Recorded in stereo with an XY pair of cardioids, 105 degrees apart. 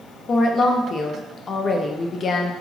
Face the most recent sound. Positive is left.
turn(degrees=45)